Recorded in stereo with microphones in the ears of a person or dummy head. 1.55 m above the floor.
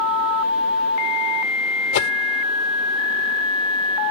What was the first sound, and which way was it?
A whoosh, 65° left (ahead or behind).